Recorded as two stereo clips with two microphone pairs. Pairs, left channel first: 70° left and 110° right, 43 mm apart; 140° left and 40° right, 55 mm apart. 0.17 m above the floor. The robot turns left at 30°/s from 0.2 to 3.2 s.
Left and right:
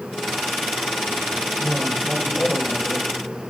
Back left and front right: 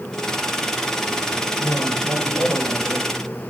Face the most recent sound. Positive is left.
turn(degrees=140)